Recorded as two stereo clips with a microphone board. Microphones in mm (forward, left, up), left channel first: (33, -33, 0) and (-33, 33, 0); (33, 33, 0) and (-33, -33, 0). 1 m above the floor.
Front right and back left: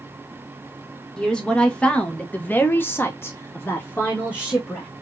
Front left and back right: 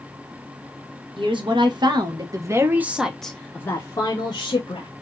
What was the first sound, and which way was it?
A woman speaking, 125° right.